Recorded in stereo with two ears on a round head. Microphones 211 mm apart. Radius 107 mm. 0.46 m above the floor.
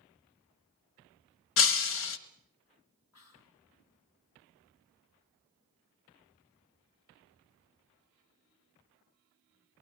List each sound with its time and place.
1.6 s breaking glass: 60° left (ahead or behind), 1.1 m
3.1 s whispering: 65° left (ahead or behind), 3.5 m